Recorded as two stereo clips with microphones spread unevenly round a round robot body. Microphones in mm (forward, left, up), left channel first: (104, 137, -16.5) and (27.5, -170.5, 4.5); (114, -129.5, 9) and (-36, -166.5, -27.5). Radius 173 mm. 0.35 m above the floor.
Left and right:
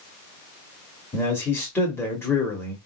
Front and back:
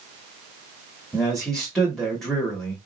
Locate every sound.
1.1 s a man speaking: 135° left, 0.8 m